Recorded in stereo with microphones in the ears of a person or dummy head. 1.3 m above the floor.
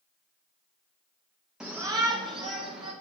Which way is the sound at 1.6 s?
5° right (ahead or behind).